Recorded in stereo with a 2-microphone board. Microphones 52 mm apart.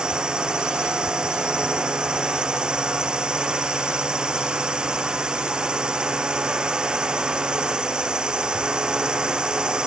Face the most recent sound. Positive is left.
turn(degrees=-15)  # may be behind; listen again after turning